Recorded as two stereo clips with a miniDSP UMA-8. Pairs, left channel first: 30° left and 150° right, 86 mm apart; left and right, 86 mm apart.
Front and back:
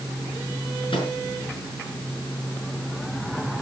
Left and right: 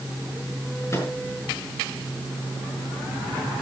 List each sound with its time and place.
0.9 s a microwave: 35° left, 5.5 m